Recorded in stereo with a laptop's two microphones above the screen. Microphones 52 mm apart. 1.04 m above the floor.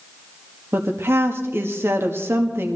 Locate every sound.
0.7 s a woman speaking: 50° right (ahead or behind), 1.9 m